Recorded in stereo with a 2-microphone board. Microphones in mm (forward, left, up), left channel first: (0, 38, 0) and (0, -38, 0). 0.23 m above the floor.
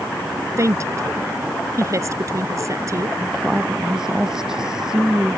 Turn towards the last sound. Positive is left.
turn(degrees=-10)  # may be behind; listen again after turning